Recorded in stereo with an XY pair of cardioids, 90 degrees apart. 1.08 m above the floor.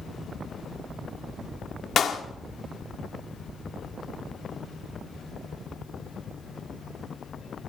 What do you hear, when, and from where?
2.0 s a clap: 55° left, 1.9 m